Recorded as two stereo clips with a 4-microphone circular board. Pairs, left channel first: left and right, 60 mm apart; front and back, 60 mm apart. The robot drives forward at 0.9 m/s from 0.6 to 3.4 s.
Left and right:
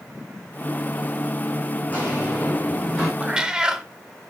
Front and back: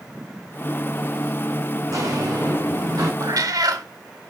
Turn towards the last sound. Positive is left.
turn(degrees=-165)